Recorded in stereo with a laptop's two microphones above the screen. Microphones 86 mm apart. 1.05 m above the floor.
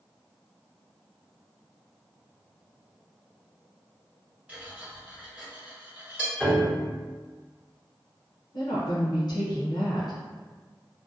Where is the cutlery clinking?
15° right (ahead or behind), 1.4 m.